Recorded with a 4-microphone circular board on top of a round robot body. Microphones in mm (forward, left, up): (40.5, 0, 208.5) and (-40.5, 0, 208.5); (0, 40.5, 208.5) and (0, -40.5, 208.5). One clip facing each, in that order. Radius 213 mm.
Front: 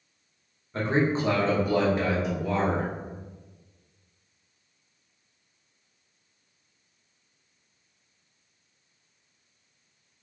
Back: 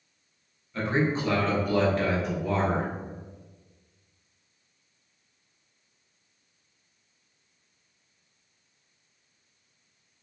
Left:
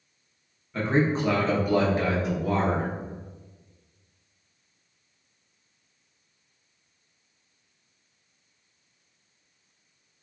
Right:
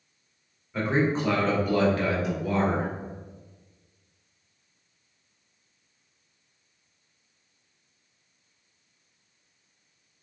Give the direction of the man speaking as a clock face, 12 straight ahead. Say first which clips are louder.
Front 2 dB, left 1 dB; 12 o'clock.